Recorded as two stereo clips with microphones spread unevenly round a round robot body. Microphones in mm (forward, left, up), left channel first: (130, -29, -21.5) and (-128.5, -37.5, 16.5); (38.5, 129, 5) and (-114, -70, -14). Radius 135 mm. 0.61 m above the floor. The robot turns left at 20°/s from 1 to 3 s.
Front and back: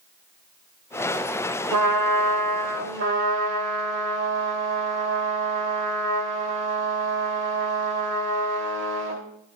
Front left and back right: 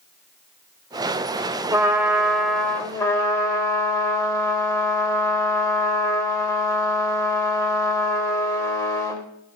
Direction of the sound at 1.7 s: 155° left.